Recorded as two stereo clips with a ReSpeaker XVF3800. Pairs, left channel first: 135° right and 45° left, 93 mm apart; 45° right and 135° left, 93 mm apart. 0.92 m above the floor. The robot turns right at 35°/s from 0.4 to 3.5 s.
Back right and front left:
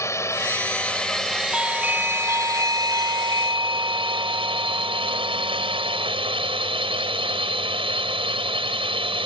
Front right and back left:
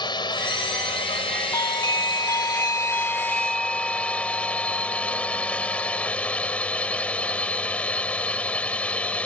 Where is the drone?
75° right; by 9.2 s 30° left.